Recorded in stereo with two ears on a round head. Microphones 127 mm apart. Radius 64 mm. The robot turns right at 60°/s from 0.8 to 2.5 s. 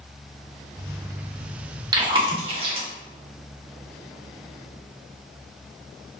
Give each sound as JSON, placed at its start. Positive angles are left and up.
{"t": 1.9, "sound": "chewing", "side_deg": -30, "distance_m": 0.7}